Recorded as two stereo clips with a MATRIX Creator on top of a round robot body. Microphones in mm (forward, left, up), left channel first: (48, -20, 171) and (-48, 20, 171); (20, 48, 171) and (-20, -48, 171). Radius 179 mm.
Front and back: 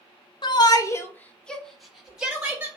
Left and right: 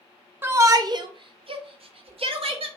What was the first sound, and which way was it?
A shout, 50° right.